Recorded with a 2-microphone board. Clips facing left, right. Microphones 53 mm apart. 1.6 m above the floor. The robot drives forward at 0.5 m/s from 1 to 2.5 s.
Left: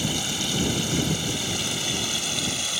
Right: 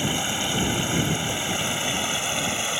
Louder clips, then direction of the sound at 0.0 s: Right 2 dB; 25° right (ahead or behind).